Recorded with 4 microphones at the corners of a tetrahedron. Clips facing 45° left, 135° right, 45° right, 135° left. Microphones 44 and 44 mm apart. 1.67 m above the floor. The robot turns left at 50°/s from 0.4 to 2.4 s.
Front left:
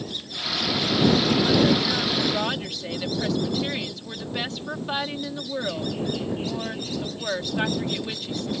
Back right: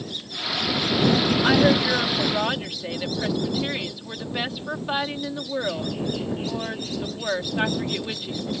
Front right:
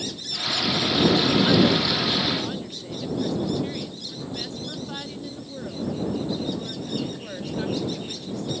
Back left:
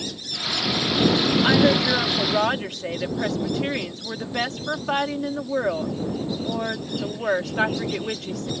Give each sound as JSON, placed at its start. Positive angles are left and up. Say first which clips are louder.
{"t": 1.4, "sound": "a woman speaking", "louder": "back right 2 dB, back left 2 dB", "azimuth_deg": -165}